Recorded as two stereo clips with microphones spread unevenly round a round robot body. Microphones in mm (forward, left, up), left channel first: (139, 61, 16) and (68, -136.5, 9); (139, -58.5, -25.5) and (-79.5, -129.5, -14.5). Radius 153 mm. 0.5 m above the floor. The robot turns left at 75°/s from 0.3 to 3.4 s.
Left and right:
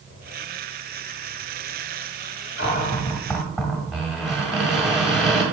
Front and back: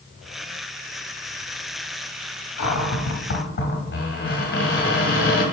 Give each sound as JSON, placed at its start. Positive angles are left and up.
{"t": 2.6, "sound": "a cupboard door", "azimuth_deg": 40, "distance_m": 2.0}